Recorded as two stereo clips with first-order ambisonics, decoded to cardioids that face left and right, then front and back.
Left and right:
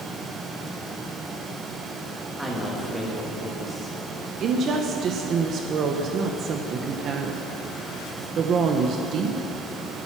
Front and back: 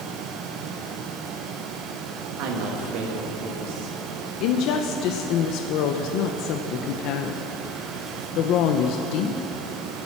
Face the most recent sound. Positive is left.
turn(degrees=-35)